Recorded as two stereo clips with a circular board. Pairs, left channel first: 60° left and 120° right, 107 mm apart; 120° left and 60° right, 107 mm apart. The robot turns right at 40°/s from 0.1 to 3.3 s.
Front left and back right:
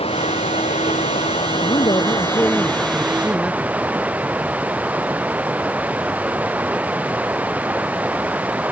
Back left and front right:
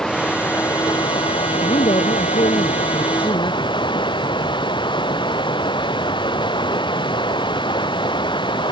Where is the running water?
35° left; by 8.7 s 165° left.